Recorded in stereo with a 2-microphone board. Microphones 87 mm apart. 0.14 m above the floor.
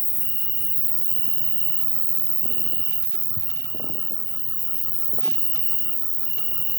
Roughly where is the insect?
Right.